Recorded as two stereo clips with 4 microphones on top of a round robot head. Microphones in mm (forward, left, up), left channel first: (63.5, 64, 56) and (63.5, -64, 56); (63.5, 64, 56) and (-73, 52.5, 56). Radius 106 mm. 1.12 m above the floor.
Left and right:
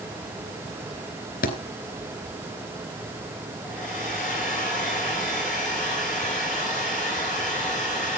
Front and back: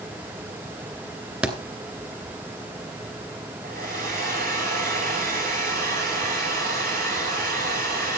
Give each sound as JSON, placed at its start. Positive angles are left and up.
{"t": 1.4, "sound": "a thud", "azimuth_deg": 105, "distance_m": 2.5}
{"t": 3.6, "sound": "a hair dryer", "azimuth_deg": 175, "distance_m": 9.5}